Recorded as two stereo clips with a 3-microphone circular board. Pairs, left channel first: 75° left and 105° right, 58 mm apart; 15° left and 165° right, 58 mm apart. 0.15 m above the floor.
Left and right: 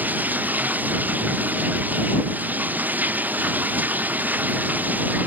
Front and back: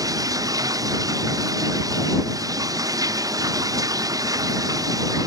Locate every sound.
0.0 s running water: 165° right